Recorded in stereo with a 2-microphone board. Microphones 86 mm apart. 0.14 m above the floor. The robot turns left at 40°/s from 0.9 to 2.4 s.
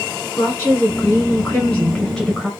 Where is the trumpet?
No trumpet in this recording.